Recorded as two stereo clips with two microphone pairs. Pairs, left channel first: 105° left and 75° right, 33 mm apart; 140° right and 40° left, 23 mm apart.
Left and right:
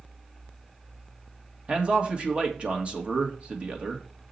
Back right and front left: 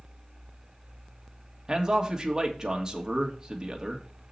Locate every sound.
1.7 s a man speaking: 20° right, 1.7 m